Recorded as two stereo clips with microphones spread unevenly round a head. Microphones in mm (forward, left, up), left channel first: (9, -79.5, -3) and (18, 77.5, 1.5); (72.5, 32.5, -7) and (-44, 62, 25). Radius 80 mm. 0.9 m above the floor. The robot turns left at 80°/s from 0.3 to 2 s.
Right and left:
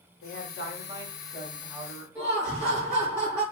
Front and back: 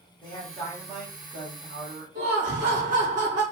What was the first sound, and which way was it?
A woman speaking, 70° right.